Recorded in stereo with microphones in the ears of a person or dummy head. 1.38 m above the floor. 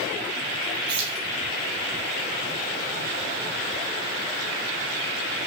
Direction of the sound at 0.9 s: 30° right (ahead or behind).